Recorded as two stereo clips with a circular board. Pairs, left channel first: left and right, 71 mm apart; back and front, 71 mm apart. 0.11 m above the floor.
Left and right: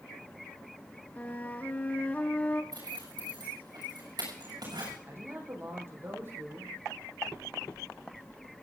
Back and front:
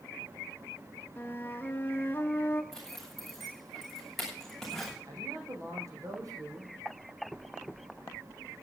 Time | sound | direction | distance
1.2 | a flute | 140° left | 1.0 m
2.7 | a zipper | 95° right | 7 m
5.1 | a man speaking | 35° right | 4.5 m